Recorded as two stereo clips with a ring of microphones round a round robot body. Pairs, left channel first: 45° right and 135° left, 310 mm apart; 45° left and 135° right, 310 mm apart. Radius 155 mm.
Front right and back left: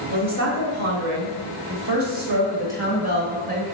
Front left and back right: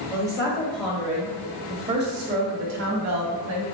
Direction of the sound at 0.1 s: 120° left.